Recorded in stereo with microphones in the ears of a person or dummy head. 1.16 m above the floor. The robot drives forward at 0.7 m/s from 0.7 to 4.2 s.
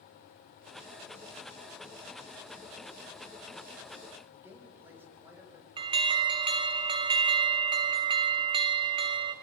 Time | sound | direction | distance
4.3 | a man speaking | 15° right (ahead or behind) | 5.5 m
5.8 | an alarm | 25° right (ahead or behind) | 1.3 m